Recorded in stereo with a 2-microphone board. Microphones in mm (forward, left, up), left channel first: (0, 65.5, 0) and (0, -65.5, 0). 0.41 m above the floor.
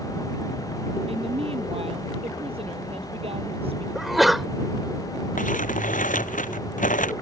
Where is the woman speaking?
45° right (ahead or behind).